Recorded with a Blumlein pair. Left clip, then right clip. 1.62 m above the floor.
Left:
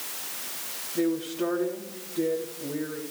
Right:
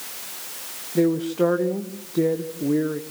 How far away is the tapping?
I don't hear tapping.